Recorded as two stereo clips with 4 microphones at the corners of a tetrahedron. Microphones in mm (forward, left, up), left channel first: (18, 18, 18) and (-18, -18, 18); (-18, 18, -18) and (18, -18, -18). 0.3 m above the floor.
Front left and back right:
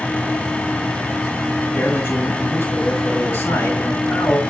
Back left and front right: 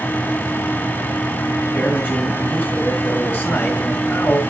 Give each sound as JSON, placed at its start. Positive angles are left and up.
{"t": 1.7, "sound": "a man speaking", "azimuth_deg": 80, "distance_m": 6.5}